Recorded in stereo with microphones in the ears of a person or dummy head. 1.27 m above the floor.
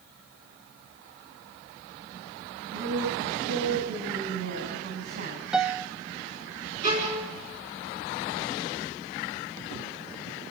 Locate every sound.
2.7 s a woman speaking: 45° right (ahead or behind), 8.5 m
5.5 s a piano: 5° right (ahead or behind), 0.6 m
6.8 s a violin: 40° right (ahead or behind), 4.5 m